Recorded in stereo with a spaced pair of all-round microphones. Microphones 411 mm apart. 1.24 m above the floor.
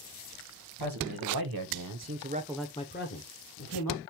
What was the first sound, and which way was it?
A man speaking, 70° right (ahead or behind).